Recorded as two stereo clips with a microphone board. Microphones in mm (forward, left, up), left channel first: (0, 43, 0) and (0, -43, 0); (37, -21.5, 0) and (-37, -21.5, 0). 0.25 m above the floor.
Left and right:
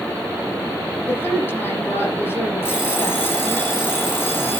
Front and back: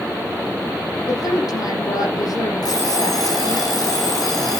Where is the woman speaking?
30° left, 7.5 m.